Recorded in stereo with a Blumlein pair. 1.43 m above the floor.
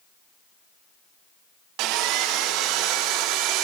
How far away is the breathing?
No breathing in this recording.